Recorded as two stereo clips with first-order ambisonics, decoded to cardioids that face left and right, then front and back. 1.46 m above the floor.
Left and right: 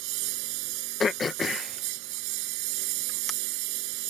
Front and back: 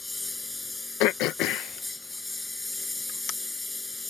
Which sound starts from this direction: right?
A lawn mower, at 0.0 s.